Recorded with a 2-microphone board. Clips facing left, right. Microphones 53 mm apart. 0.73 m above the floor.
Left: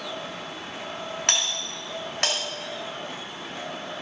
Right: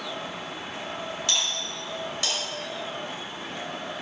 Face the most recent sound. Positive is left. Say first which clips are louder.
# left 2 dB
turn(degrees=70)  # may be behind; listen again after turning